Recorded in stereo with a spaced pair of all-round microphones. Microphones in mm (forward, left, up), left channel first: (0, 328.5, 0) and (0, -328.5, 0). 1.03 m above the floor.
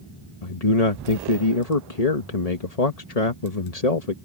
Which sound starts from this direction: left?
A man speaking, at 0.4 s.